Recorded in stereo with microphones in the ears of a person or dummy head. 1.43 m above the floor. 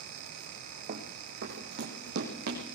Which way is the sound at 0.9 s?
45° right (ahead or behind).